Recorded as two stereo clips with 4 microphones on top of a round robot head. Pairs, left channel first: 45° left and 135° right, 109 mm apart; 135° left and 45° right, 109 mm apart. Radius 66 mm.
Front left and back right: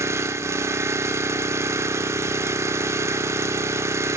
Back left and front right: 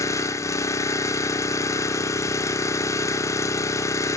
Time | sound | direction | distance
0.0 | an engine running | 175° left | 0.8 m